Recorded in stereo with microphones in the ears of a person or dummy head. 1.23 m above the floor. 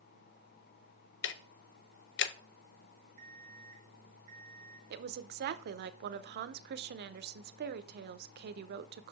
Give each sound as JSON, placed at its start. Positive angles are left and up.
{"t": 1.2, "sound": "ticking", "side_deg": 60, "distance_m": 0.5}
{"t": 3.2, "sound": "an alarm clock", "side_deg": -35, "distance_m": 1.3}
{"t": 4.9, "sound": "a woman speaking", "side_deg": -60, "distance_m": 0.6}